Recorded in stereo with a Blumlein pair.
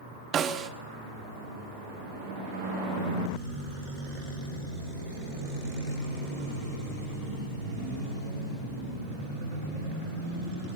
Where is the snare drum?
25° right, 1.3 m.